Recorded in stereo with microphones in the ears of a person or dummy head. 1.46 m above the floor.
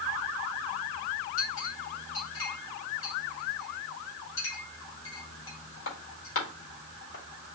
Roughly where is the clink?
Left.